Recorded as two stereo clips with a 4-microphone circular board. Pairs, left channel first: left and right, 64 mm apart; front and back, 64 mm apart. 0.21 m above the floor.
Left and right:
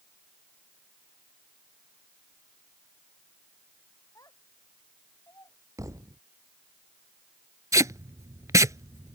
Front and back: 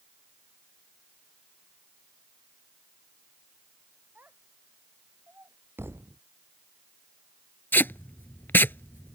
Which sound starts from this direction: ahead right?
Tape being pulled, at 7.7 s.